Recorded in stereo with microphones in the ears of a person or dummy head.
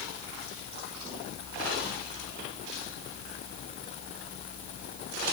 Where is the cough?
I don't hear a cough.